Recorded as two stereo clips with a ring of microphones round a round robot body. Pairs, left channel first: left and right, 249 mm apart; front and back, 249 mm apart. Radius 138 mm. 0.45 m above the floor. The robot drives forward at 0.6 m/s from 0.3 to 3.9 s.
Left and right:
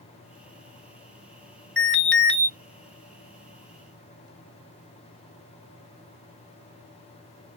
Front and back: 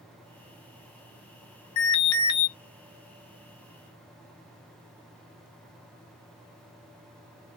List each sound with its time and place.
1.8 s an alarm: 5° left, 1.7 m